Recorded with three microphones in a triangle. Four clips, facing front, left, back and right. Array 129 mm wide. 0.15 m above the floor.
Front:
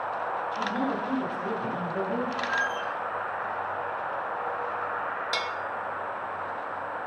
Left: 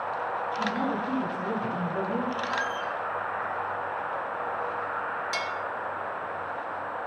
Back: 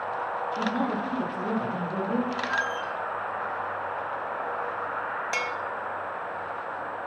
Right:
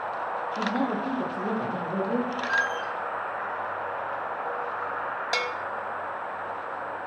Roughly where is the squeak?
Right.